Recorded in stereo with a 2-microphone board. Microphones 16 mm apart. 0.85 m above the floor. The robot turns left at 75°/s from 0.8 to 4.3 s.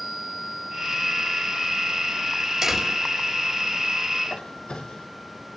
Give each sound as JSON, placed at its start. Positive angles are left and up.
{"t": 2.6, "sound": "a door slam", "azimuth_deg": -160, "distance_m": 5.0}
{"t": 4.2, "sound": "a squeak", "side_deg": 85, "distance_m": 4.0}